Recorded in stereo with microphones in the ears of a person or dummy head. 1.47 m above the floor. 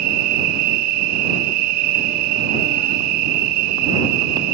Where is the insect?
60° right (ahead or behind).